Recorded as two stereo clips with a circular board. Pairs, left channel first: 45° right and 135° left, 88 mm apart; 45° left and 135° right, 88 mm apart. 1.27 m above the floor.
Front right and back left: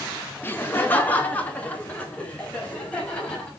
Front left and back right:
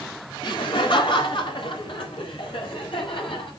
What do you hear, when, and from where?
0.4 s laughter: 20° left, 2.5 m; by 3.5 s 30° left, 7 m